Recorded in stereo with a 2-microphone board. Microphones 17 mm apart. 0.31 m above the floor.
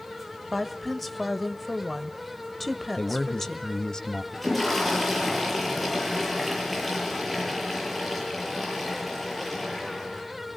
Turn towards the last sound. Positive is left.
turn(degrees=0)  # may be behind; listen again after turning